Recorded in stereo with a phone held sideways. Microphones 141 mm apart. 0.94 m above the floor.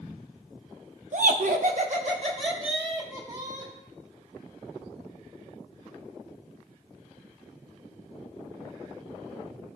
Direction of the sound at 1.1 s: 60° right (ahead or behind).